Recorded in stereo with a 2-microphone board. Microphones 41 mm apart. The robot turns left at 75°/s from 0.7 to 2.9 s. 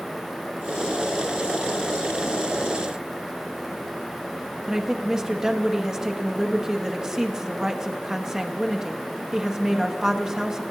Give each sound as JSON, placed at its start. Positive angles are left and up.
{"t": 4.7, "sound": "a woman speaking", "side_deg": -15, "distance_m": 1.2}